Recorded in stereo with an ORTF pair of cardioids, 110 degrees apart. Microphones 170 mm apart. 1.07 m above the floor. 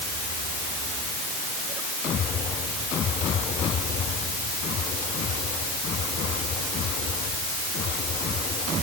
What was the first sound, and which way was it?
Only background noise.